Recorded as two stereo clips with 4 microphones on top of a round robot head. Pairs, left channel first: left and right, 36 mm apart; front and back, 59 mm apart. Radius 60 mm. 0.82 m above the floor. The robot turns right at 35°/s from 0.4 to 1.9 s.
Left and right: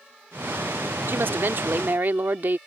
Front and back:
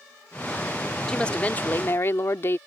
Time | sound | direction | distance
1.1 | a woman speaking | 80° right | ?